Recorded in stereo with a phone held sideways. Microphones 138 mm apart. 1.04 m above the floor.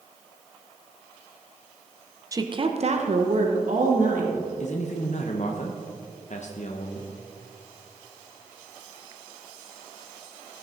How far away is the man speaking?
About 0.8 m.